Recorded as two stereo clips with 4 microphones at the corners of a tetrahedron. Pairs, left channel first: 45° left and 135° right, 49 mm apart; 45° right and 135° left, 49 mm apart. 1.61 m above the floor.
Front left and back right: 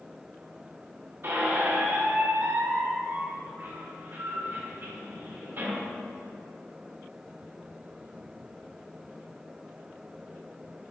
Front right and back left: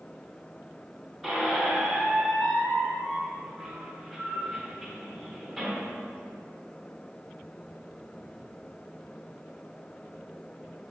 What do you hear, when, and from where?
1.2 s a squeak: 130° right, 1.1 m